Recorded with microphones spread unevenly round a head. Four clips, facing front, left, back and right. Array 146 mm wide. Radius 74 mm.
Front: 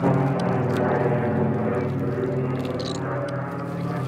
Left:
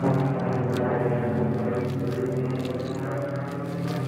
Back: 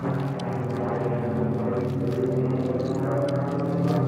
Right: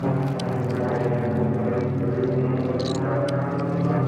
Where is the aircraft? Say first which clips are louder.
Left 1 dB, front 7 dB; 15° left; by 4.1 s 140° right.